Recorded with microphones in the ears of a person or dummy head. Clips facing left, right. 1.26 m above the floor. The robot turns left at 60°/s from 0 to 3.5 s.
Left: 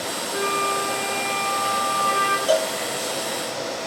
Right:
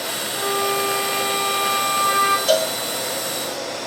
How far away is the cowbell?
About 1.1 m.